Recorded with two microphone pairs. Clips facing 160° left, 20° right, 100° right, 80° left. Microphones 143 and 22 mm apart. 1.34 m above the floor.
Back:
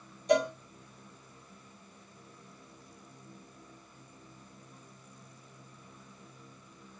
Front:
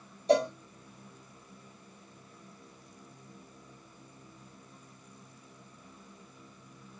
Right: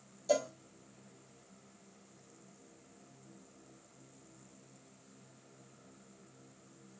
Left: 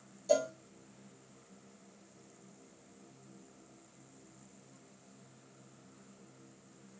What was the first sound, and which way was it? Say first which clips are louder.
A cowbell: front 1 dB, left 2 dB; 30° right.